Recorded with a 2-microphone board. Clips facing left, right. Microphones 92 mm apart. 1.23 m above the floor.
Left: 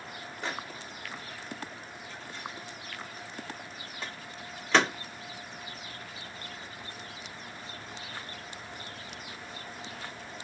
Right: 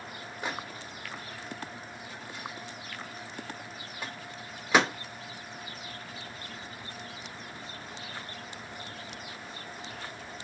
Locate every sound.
0.4 s a microwave: 10° right (ahead or behind), 0.8 m